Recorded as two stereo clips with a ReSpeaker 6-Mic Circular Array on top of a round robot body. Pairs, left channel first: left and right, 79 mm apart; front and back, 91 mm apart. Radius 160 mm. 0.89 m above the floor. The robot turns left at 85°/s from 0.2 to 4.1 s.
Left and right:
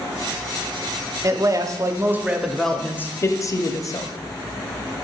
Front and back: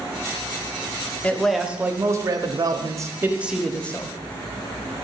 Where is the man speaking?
65° right, 0.7 m; by 4.1 s 50° left, 0.7 m.